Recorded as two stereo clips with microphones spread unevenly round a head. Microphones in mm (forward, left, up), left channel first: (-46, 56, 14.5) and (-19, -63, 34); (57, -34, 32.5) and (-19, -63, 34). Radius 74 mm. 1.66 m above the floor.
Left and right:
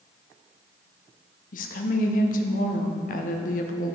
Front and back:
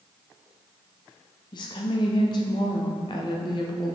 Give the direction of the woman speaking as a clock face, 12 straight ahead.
10 o'clock.